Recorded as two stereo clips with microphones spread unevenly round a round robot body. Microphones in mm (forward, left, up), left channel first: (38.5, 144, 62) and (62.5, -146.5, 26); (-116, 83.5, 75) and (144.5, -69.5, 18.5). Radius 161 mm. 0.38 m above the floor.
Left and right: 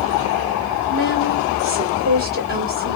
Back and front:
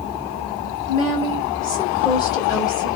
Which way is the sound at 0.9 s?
125° right.